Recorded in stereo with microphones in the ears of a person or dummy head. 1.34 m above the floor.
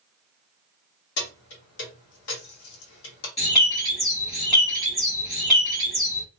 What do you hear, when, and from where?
1.2 s keys jangling: 70° left (ahead or behind), 1.1 m
3.4 s a bird: 20° left (ahead or behind), 1.1 m